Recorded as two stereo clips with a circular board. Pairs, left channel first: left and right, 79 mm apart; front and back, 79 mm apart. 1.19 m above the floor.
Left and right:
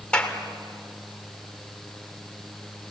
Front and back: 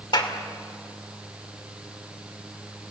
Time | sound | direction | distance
0.1 | a clap | 15° left | 3 m